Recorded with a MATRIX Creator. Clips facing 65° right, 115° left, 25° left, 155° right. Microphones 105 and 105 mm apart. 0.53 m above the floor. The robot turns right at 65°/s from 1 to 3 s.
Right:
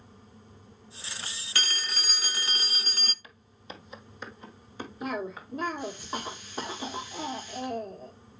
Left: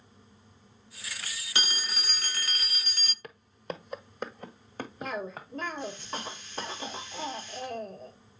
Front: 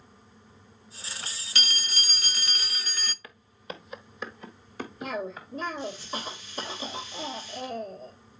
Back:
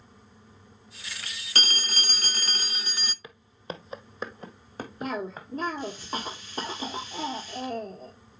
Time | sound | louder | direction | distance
1.6 | a phone ringing | even, back 3 dB | 175° left | 0.6 m
3.2 | footsteps | left 8 dB, back 2 dB | 135° left | 0.9 m
5.0 | a cough | right 3 dB, back 1 dB | 145° right | 1.7 m